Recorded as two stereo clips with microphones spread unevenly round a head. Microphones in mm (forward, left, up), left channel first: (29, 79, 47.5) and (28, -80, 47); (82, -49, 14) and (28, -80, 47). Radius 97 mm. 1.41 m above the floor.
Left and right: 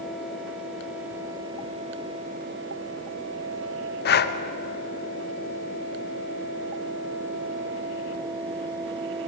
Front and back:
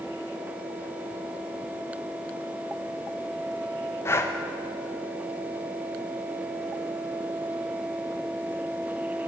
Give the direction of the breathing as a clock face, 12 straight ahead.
10 o'clock.